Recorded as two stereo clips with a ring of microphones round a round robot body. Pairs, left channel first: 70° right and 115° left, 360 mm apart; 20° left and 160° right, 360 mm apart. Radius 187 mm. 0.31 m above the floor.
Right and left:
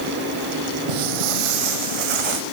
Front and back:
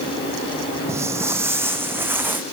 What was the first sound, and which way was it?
Footsteps, 120° left.